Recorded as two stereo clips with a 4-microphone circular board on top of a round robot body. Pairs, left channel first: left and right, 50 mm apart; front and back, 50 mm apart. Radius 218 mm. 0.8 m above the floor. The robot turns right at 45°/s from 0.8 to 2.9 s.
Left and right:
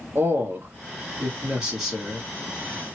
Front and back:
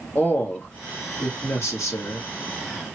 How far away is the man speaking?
About 1.3 m.